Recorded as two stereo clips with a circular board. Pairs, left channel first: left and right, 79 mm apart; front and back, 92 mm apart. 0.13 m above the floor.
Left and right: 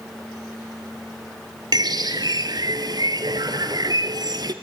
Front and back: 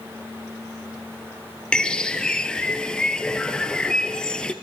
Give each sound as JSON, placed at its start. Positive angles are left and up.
{"t": 1.7, "sound": "a bird", "azimuth_deg": -80, "distance_m": 1.1}